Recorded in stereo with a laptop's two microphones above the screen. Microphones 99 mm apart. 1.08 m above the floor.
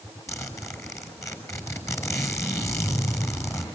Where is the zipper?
30° left (ahead or behind), 6 m.